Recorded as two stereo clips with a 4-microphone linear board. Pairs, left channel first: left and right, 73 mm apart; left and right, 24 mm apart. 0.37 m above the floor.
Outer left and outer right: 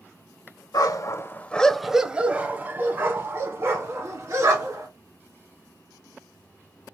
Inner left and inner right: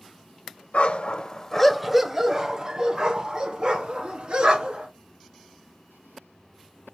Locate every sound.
0.7 s a dog barking: 60° left (ahead or behind), 0.5 m; by 4.9 s 45° right (ahead or behind), 2.0 m